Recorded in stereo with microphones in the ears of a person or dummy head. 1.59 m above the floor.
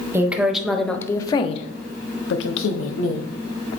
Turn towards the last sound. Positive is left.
turn(degrees=90)